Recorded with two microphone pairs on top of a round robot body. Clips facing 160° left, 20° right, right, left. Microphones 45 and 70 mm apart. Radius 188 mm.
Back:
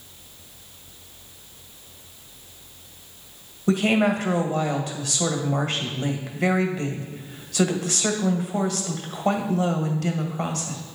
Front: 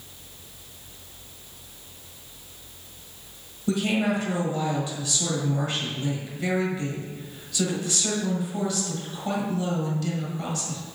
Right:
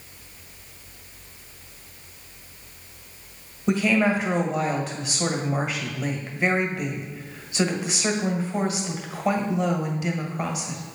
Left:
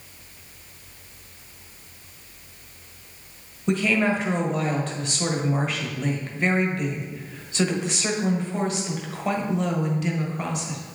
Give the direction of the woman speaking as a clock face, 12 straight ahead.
6 o'clock.